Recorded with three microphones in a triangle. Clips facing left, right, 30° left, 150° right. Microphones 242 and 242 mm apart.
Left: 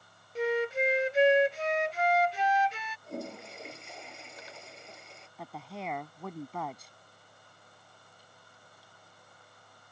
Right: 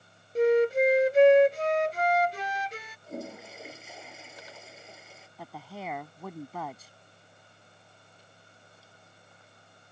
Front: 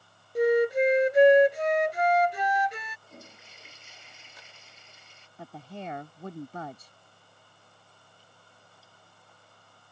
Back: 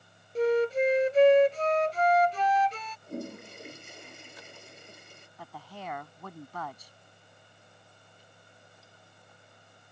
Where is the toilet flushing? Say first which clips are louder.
Right 1 dB, back 14 dB; 175° right.